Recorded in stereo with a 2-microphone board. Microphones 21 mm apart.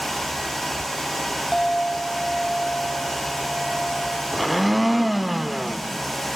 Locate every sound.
1.5 s a clink: 15° left (ahead or behind), 1.9 m
4.3 s a blender: 5° right (ahead or behind), 0.6 m